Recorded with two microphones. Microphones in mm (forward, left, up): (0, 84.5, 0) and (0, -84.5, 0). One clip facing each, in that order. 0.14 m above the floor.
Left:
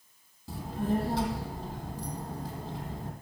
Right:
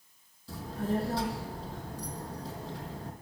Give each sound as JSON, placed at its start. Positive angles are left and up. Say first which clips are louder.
{"t": 0.5, "sound": "a child speaking", "louder": "left 2 dB", "side_deg": 65, "distance_m": 3.0}